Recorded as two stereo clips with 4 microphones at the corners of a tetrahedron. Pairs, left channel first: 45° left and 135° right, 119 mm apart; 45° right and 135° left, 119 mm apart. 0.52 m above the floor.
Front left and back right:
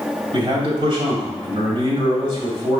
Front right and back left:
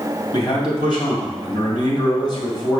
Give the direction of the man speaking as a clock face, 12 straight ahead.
3 o'clock.